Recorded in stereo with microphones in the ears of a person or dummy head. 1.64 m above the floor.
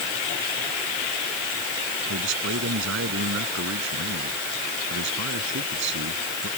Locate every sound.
2.1 s a man speaking: 70° right (ahead or behind)